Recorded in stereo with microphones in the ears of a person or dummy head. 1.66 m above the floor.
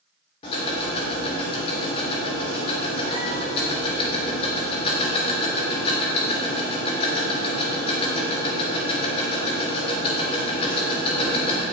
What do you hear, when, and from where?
0.4 s ticking: 35° left (ahead or behind), 2.5 m